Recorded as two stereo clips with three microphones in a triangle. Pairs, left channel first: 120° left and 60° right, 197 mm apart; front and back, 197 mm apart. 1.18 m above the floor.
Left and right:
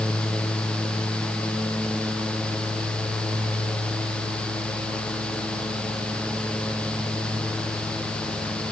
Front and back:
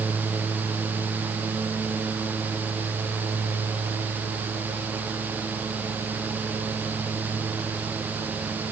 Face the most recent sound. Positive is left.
No sound to turn to.